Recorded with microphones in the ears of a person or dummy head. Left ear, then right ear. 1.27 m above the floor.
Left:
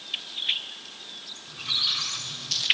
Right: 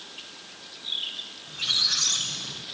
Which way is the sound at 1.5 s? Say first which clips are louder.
Right 2 dB; 25° left (ahead or behind).